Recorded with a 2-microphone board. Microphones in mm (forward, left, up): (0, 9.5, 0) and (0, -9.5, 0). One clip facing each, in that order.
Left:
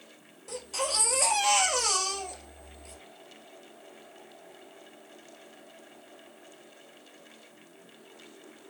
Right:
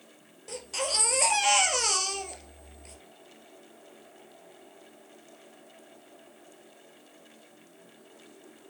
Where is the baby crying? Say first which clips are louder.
Even; 20° right (ahead or behind), 1.4 m.